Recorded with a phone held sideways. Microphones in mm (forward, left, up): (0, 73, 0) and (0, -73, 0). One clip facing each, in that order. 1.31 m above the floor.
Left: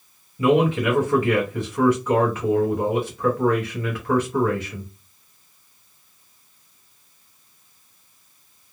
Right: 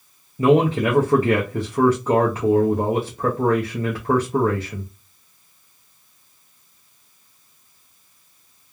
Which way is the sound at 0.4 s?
35° right (ahead or behind).